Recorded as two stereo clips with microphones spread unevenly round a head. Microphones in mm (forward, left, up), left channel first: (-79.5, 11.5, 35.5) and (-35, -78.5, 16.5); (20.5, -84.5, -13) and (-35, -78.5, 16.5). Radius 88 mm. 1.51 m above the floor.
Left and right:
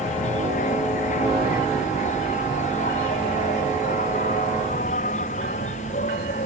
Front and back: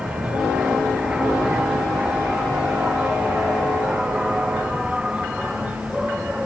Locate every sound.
0.0 s an insect: 95° left